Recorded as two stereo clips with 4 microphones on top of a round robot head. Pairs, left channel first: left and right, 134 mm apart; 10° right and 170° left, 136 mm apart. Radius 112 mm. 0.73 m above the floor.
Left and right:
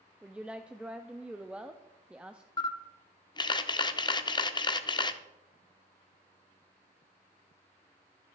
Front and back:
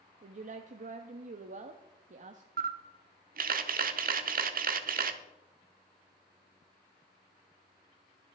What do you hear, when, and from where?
0.2 s a woman speaking: 170° right, 0.8 m
2.6 s a camera shutter: 150° left, 0.9 m